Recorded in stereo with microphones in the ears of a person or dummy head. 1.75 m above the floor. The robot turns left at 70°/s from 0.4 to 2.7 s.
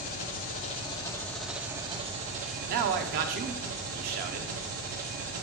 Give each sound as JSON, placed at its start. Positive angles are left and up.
{"t": 0.0, "sound": "an engine running", "azimuth_deg": 70, "distance_m": 1.2}
{"t": 2.7, "sound": "a man speaking", "side_deg": -45, "distance_m": 0.8}